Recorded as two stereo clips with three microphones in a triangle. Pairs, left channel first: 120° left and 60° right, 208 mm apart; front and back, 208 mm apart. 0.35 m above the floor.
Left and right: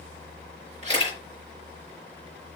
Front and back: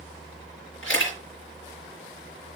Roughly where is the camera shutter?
Ahead.